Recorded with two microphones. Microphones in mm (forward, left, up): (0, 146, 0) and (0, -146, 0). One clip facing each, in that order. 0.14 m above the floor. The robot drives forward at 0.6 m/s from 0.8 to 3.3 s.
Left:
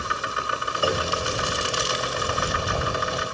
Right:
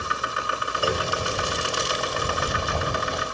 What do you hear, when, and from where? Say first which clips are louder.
0.8 s a clunk: left 1 dB; 5° right (ahead or behind), 3 m